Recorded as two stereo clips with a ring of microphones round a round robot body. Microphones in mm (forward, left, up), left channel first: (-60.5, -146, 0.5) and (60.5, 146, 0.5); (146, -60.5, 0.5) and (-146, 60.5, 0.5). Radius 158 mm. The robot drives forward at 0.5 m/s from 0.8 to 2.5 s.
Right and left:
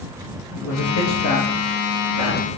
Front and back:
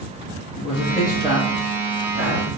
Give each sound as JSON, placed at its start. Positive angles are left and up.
{"t": 0.6, "sound": "a man speaking", "azimuth_deg": -95, "distance_m": 0.7}